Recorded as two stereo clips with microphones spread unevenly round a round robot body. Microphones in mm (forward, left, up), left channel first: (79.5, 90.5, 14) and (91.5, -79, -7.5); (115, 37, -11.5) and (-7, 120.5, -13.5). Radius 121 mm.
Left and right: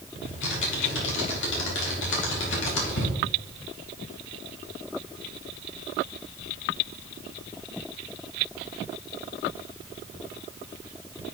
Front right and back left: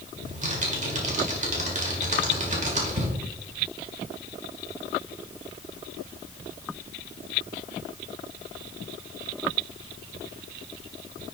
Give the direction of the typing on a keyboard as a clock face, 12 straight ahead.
8 o'clock.